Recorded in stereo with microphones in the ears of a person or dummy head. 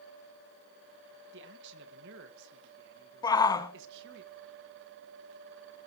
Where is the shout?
25° left (ahead or behind), 1.2 m.